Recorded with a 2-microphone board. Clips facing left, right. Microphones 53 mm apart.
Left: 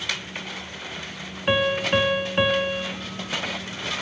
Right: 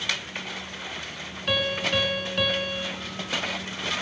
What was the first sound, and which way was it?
A piano, 25° left (ahead or behind).